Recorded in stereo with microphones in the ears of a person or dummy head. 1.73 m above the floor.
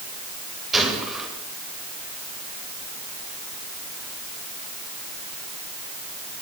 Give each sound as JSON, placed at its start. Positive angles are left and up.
{"t": 0.7, "sound": "a gunshot", "side_deg": 0, "distance_m": 9.0}